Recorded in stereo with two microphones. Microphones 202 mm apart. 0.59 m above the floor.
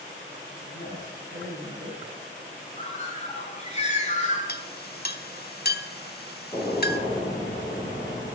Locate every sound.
0.6 s a man speaking: 60° left (ahead or behind), 5 m
2.8 s a bird: 35° left (ahead or behind), 5.5 m
4.5 s a clink: 50° left (ahead or behind), 1.1 m
6.5 s a gunshot: 20° left (ahead or behind), 3.5 m